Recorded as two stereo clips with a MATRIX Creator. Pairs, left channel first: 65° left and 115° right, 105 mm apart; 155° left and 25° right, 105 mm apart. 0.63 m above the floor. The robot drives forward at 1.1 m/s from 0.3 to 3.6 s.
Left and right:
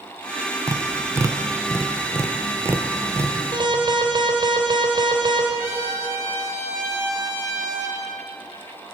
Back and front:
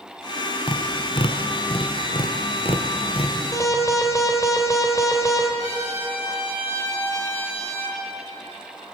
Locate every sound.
0.7 s tapping: 170° right, 0.9 m; by 3.4 s 175° right, 4 m
3.5 s an alarm: 145° right, 3.5 m; by 5.5 s 150° right, 3.5 m
5.6 s a trumpet: straight behind, 7.5 m